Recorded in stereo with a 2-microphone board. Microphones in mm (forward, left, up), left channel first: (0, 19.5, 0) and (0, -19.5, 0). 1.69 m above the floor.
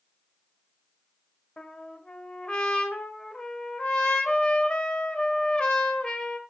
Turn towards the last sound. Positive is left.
turn(degrees=30)  # may be behind; listen again after turning